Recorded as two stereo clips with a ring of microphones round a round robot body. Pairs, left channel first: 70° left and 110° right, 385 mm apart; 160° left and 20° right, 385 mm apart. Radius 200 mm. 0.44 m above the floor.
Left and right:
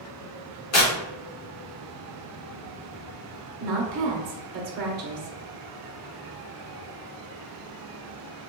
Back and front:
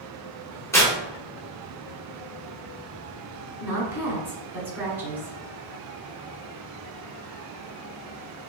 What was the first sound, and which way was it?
Tearing paper, 80° left.